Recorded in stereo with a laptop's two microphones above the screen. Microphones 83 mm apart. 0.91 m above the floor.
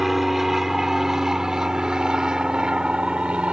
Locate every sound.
0.0 s an aircraft: centre (ahead or behind); by 3.5 s 15° right (ahead or behind)